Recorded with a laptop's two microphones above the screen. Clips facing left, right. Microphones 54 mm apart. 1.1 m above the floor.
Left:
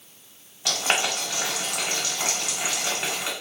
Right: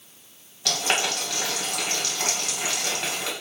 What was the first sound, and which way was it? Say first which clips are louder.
Boiling: even; 15° left (ahead or behind).